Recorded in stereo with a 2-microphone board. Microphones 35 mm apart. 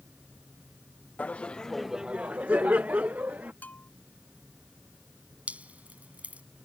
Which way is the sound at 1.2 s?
45° left (ahead or behind).